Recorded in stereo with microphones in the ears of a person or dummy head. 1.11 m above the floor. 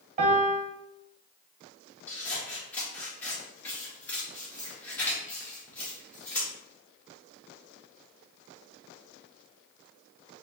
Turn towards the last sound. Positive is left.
turn(degrees=10)  # may be behind; listen again after turning